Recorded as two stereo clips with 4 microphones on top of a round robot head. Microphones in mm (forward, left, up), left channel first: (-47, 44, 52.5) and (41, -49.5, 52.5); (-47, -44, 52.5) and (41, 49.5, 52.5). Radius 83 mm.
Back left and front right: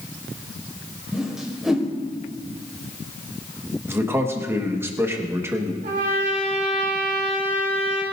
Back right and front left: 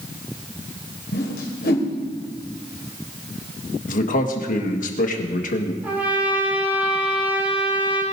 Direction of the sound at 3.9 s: 120° right.